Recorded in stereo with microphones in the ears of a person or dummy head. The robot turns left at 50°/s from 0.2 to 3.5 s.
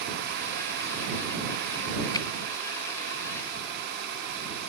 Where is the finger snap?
20° left (ahead or behind); by 2.3 s 25° left (ahead or behind).